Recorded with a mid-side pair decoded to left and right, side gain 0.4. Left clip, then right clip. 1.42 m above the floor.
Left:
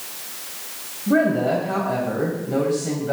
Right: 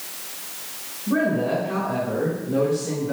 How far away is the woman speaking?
About 2.5 m.